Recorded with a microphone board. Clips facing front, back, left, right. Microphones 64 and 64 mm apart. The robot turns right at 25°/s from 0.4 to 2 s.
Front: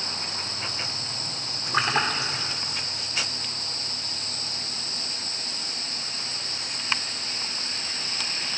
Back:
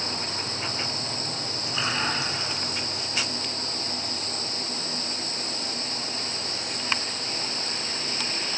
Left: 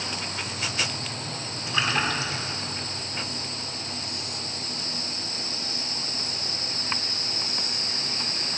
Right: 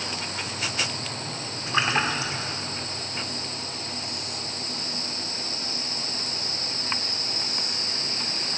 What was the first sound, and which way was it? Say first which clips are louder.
A splash: front 4 dB, right 2 dB; 30° right.